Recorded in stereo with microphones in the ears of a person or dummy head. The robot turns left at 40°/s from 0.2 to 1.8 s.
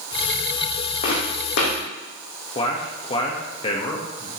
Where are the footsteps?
40° left (ahead or behind), 3.5 m; by 1.8 s 60° left (ahead or behind), 3.5 m.